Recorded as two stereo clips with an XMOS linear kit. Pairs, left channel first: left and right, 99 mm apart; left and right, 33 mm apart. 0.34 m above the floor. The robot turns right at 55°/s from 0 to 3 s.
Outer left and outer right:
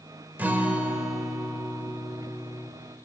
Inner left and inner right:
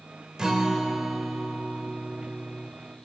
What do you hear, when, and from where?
0.4 s a guitar: 20° right (ahead or behind), 1.1 m; by 2.7 s 20° left (ahead or behind), 1.1 m